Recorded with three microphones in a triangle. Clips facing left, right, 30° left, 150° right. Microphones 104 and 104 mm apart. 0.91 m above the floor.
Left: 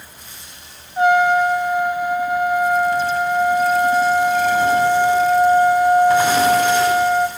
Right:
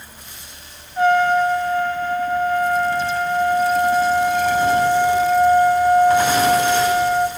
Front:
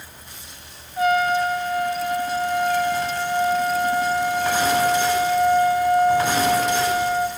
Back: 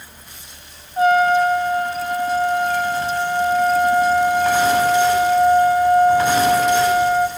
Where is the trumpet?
160° left, 1.7 m.